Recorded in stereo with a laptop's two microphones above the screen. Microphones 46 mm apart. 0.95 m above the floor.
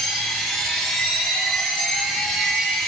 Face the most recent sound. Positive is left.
turn(degrees=5)  # may be behind; listen again after turning